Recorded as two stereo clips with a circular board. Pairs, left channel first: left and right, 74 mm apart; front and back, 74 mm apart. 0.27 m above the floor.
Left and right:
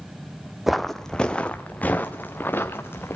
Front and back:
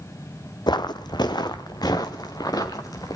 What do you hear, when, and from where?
0.7 s footsteps: 5° right, 0.8 m; by 3.2 s 30° left, 2 m